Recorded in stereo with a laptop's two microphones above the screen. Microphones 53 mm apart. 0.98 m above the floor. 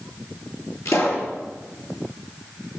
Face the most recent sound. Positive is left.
turn(degrees=85)